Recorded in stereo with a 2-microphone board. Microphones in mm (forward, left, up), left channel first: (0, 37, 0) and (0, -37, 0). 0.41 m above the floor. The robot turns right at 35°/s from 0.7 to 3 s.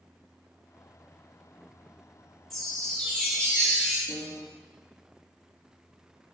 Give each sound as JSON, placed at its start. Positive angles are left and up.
{"t": 2.5, "sound": "a chime", "side_deg": 5, "distance_m": 0.7}
{"t": 4.1, "sound": "a piano", "side_deg": 50, "distance_m": 1.9}